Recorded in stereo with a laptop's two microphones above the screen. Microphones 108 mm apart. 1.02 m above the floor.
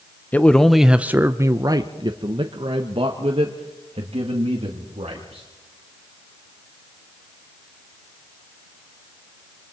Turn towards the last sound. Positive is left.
turn(degrees=-75)  # may be behind; listen again after turning